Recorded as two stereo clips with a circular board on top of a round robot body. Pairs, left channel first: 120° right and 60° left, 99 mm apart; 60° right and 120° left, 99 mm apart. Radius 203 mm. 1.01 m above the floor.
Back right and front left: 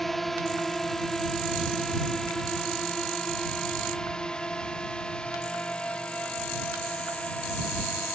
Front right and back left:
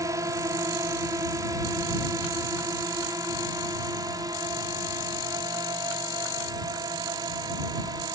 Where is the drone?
155° left; by 8.2 s 165° left.